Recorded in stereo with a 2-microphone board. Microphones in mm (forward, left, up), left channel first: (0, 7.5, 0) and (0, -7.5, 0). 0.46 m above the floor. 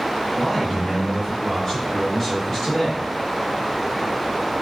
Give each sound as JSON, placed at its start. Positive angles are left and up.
{"t": 0.3, "sound": "a man speaking", "side_deg": 35, "distance_m": 1.7}